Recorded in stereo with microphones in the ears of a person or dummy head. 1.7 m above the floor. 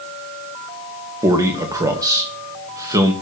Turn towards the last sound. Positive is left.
turn(degrees=-20)  # may be behind; listen again after turning